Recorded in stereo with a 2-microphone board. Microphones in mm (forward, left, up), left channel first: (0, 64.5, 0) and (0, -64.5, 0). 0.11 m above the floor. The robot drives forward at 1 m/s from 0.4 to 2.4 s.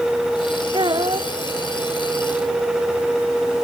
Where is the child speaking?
40° right (ahead or behind); by 1.3 s 45° right (ahead or behind).